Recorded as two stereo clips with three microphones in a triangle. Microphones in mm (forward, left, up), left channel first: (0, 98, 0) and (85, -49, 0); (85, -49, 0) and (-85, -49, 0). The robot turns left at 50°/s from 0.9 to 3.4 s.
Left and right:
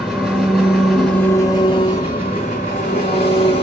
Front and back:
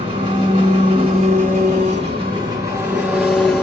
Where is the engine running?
155° right, 1.4 m; by 3.6 s 80° left, 1.4 m.